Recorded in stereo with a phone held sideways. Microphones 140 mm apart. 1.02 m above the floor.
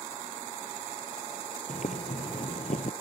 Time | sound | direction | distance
1.7 | boiling | 60° left (ahead or behind) | ?